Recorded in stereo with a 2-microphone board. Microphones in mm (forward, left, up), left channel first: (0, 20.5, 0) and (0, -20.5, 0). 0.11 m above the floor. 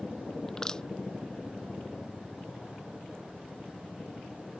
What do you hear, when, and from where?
0.5 s crushing: 20° left (ahead or behind)